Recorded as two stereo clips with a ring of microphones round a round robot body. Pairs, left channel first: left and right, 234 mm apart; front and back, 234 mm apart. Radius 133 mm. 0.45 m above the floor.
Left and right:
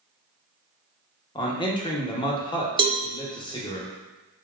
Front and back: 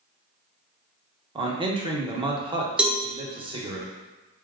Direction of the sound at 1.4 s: 135° left.